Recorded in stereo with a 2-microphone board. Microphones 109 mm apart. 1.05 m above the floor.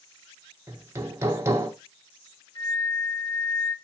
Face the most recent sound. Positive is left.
turn(degrees=55)  # may be behind; listen again after turning